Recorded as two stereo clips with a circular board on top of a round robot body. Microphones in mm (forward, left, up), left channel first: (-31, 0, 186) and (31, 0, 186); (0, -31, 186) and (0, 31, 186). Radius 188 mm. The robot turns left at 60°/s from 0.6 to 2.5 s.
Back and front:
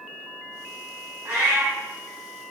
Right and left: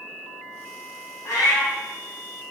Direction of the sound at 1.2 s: 40° right.